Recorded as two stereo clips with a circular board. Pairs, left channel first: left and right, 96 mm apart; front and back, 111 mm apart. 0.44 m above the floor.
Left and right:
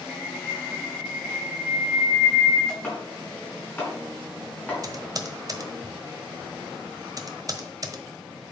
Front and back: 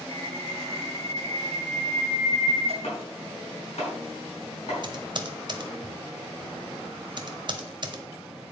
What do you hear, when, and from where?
0.1 s a bird: 175° left, 2.5 m
2.8 s chopping: 20° left, 4.5 m
4.8 s typing on a keyboard: 135° right, 1.1 m